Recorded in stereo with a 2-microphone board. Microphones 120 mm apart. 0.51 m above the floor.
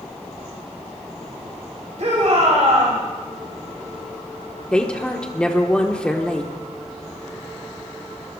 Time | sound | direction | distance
2.0 | a shout | 65° right (ahead or behind) | 3 m
4.7 | a woman speaking | 10° left (ahead or behind) | 1.0 m